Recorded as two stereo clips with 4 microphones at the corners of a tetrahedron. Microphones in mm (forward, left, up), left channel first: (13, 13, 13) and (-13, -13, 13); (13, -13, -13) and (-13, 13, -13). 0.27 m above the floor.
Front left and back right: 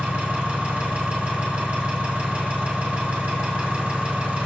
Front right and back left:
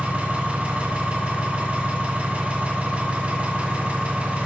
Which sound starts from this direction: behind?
An engine running, at 0.0 s.